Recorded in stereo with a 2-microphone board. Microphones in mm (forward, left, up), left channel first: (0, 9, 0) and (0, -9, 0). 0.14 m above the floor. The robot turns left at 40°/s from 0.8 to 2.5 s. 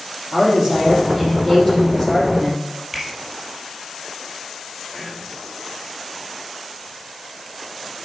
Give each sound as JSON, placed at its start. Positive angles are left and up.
{"t": 0.3, "sound": "a woman speaking", "azimuth_deg": -160, "distance_m": 4.5}
{"t": 2.9, "sound": "a finger snap", "side_deg": -5, "distance_m": 2.5}
{"t": 4.9, "sound": "whispering", "side_deg": 5, "distance_m": 2.5}